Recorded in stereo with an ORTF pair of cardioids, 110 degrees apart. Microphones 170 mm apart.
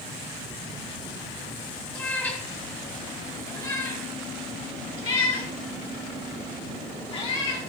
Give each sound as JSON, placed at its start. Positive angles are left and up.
{"t": 1.9, "sound": "a cat meowing", "azimuth_deg": 10, "distance_m": 4.0}